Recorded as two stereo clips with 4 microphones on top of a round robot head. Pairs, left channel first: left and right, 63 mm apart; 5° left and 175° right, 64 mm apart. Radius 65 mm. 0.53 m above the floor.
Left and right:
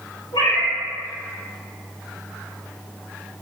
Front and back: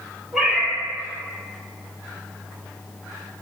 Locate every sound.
0.3 s a cat meowing: 100° left, 1.3 m